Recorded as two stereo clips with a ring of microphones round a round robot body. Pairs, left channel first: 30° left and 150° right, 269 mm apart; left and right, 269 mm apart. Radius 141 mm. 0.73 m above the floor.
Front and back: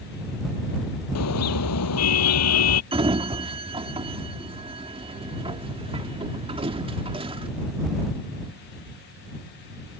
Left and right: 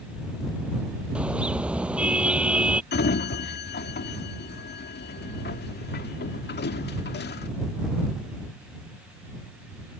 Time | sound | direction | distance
1.1 | a car horn | 5° right | ?
2.9 | a sliding door | 140° left | ?